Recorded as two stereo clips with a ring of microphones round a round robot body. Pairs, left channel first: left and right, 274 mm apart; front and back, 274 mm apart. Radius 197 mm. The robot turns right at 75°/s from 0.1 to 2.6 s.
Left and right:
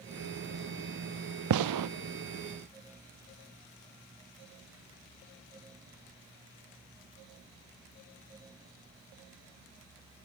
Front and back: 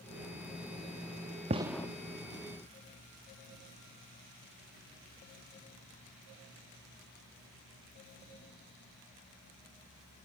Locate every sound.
1.5 s a gunshot: 110° right, 0.7 m; by 1.9 s 80° right, 0.7 m